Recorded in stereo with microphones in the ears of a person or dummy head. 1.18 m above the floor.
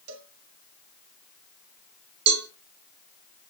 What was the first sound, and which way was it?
A cowbell, 80° right.